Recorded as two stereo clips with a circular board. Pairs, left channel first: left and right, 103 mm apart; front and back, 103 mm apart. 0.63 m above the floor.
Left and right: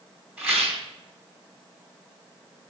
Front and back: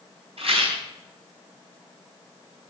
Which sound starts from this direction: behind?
A rattle, at 0.4 s.